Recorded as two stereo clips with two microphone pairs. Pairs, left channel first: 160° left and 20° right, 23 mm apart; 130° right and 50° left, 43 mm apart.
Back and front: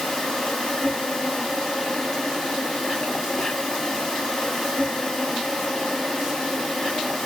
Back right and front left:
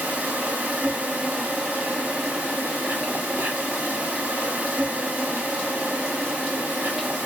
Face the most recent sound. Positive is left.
turn(degrees=105)